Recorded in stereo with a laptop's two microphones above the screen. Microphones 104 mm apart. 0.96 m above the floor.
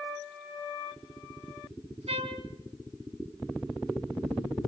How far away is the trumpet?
About 2.5 m.